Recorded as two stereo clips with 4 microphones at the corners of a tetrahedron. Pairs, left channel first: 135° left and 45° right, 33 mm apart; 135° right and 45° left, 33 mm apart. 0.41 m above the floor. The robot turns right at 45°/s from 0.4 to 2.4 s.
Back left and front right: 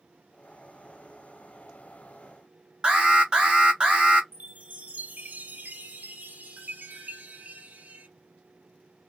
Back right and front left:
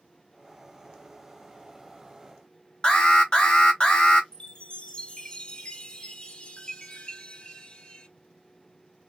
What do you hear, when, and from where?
2.8 s an alarm: 90° right, 2 m
4.3 s a chime: 75° right, 1.5 m